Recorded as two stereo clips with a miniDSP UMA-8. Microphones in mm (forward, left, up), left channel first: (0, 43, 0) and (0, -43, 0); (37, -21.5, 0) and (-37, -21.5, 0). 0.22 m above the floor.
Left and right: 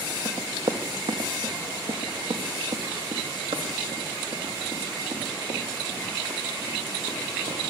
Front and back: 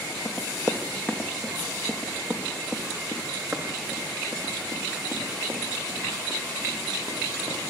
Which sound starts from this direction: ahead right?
Running footsteps, at 0.2 s.